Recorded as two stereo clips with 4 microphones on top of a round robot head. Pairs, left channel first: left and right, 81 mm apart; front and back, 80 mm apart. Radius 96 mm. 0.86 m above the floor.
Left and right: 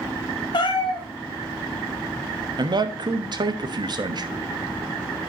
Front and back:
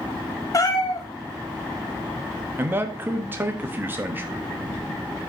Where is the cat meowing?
45° left, 1.5 m.